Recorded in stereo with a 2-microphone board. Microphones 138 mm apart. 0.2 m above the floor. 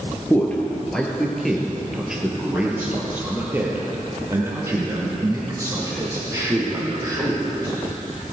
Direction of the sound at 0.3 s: 10° left (ahead or behind).